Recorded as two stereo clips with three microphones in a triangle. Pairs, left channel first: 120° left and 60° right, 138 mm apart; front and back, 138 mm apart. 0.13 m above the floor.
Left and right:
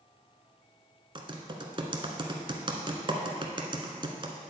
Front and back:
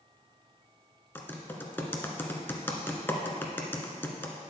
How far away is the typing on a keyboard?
About 1.0 m.